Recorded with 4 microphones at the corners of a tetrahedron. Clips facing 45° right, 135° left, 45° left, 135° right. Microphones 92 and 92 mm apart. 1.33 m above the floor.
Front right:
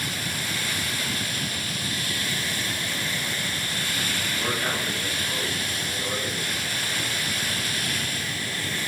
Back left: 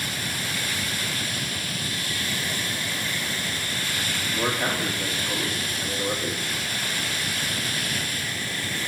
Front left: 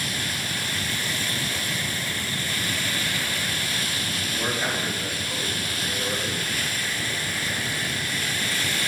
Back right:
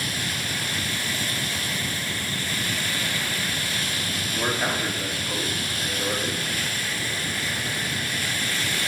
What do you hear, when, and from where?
4.3 s a man speaking: 160° left, 2.5 m